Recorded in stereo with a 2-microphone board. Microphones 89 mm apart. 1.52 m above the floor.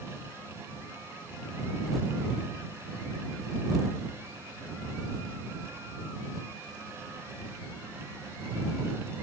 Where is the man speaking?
No man speaking in this recording.